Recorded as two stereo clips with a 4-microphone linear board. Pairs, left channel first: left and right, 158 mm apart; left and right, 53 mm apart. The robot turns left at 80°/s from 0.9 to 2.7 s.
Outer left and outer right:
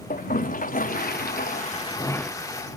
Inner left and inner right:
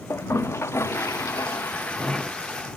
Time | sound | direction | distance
0.1 | a toilet flushing | 115° left | ?